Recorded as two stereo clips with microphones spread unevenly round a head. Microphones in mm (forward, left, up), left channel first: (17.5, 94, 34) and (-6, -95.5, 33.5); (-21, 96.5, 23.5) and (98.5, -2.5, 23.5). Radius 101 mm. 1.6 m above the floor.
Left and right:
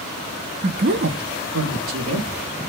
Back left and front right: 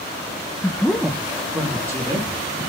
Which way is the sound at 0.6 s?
145° right.